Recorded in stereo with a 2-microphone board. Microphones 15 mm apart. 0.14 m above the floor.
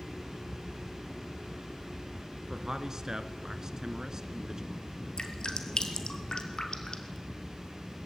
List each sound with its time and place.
2.5 s a man speaking: 40° right (ahead or behind), 1.5 m
5.2 s dripping: 65° left (ahead or behind), 2 m